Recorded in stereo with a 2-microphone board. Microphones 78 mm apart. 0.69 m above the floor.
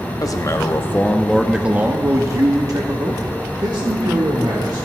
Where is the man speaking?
50° left (ahead or behind), 0.8 m; by 4.9 s 70° right (ahead or behind), 1.9 m.